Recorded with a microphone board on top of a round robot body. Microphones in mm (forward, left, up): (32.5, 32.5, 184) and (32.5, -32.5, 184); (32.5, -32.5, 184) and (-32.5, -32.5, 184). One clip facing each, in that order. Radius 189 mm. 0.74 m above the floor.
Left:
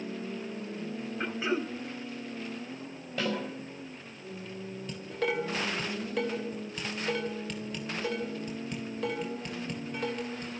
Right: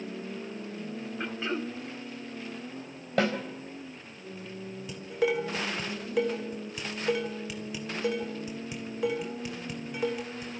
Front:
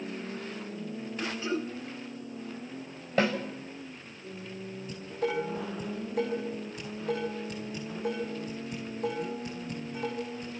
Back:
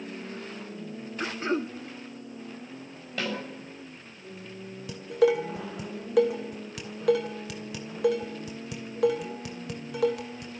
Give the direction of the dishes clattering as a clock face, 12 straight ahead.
6 o'clock.